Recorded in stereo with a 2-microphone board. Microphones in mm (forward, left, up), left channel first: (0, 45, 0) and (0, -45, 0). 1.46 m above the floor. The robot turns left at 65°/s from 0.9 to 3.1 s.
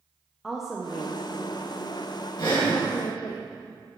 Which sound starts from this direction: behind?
A woman speaking, at 0.4 s.